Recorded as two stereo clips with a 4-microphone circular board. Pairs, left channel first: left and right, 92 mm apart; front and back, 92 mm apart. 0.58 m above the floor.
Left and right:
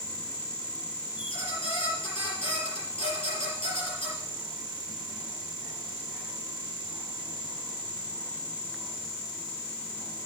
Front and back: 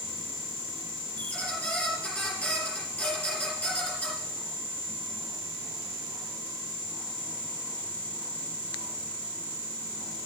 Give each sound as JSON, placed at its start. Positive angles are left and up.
{"t": 1.2, "sound": "a squeak", "azimuth_deg": 80, "distance_m": 5.0}